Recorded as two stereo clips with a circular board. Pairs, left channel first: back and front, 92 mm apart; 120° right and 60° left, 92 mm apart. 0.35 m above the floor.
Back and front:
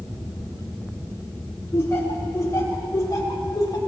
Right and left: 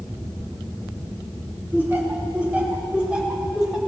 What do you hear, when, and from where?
1.7 s laughter: 125° left, 4.5 m; by 3.8 s 145° left, 3 m